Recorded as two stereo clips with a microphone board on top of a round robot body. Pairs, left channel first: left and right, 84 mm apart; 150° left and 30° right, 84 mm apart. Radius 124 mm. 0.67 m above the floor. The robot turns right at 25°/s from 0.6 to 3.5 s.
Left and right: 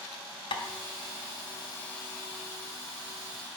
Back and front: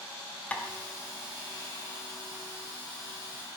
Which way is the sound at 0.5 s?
75° left.